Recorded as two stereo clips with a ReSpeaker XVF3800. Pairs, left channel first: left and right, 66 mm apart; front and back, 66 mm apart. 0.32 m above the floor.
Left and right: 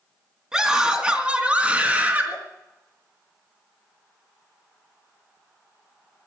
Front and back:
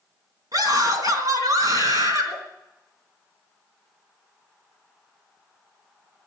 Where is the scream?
170° right, 3.5 m; by 2.4 s 155° right, 4 m.